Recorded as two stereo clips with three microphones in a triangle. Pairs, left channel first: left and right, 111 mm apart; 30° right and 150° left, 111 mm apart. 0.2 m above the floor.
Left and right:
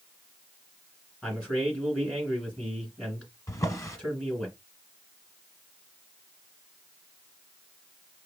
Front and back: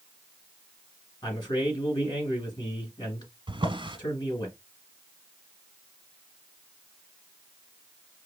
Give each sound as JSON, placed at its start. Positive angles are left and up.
{"t": 1.2, "sound": "a man speaking", "azimuth_deg": 10, "distance_m": 2.5}
{"t": 3.5, "sound": "a drawer", "azimuth_deg": 140, "distance_m": 1.0}